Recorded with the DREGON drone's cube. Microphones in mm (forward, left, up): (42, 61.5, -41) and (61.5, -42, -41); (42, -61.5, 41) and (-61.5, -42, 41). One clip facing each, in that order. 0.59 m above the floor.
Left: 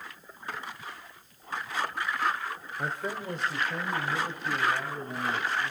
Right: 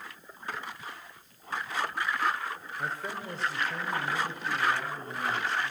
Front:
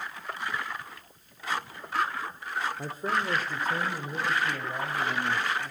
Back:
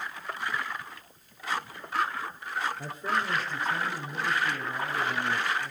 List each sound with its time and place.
2.8 s a man speaking: 40° left, 1.9 m; by 5.7 s 20° left, 5.5 m